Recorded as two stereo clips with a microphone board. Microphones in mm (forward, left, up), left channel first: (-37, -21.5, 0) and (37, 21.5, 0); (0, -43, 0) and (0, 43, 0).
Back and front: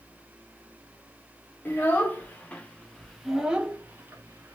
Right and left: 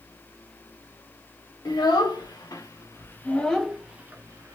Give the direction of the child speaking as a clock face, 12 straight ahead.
3 o'clock.